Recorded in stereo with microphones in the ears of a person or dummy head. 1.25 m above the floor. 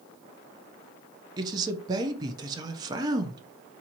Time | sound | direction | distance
1.4 | a man speaking | 25° right (ahead or behind) | 0.5 m